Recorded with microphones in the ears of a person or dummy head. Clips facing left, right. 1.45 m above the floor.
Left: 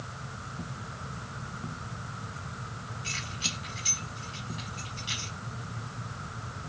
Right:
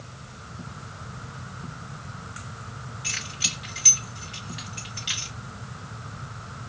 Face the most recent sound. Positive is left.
turn(degrees=-40)  # may be behind; listen again after turning